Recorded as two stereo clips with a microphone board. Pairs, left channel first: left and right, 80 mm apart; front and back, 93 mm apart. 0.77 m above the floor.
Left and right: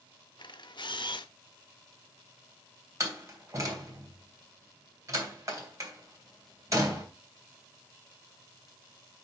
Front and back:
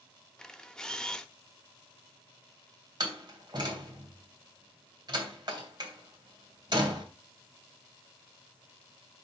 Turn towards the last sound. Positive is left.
turn(degrees=-135)